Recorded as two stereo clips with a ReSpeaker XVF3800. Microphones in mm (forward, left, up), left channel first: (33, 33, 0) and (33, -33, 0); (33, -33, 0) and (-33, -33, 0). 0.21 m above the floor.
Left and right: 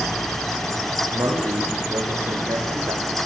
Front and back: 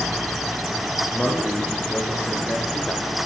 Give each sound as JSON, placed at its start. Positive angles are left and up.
{"t": 1.1, "sound": "a man speaking", "azimuth_deg": -70, "distance_m": 9.5}